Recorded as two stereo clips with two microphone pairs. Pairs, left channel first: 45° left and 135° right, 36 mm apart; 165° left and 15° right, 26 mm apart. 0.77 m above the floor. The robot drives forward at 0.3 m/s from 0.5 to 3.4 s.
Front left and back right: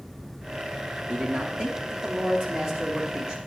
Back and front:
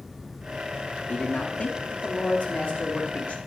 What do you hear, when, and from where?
1.1 s a man speaking: straight behind, 0.7 m